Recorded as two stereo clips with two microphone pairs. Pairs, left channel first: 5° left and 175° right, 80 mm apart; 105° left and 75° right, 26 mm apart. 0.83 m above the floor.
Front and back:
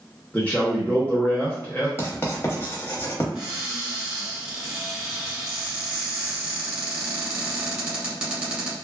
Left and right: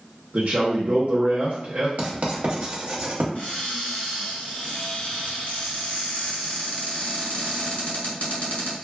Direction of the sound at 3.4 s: 115° left.